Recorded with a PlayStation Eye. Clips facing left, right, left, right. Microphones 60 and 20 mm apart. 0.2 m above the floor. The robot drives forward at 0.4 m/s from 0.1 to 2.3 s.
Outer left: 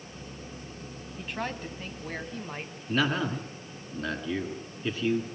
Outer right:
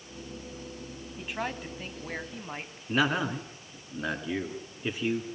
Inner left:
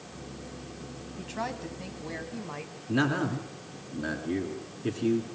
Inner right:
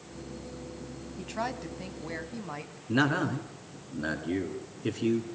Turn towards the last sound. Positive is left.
turn(degrees=-15)  # may be behind; listen again after turning